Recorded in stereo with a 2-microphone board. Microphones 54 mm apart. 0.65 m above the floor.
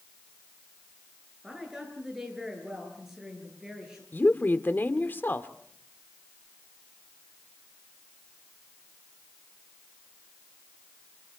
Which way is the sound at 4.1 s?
40° left (ahead or behind).